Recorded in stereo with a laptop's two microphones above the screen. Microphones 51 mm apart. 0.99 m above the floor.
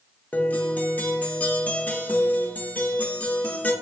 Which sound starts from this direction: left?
A guitar, at 0.3 s.